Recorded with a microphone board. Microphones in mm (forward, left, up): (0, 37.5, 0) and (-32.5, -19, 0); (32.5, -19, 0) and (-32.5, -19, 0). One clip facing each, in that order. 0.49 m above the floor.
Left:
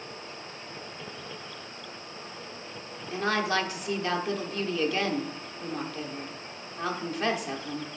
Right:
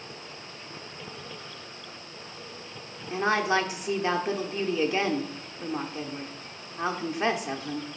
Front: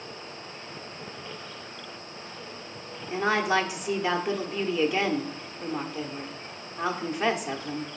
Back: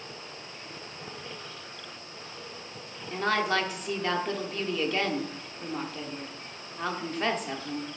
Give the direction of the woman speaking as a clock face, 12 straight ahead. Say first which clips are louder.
Right 3 dB, front 2 dB; 2 o'clock.